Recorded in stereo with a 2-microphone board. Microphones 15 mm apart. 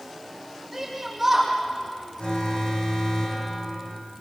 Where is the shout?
10° right (ahead or behind), 7 m.